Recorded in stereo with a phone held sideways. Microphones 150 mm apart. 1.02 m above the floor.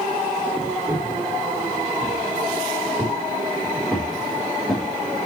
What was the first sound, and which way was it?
Footsteps, 20° right (ahead or behind).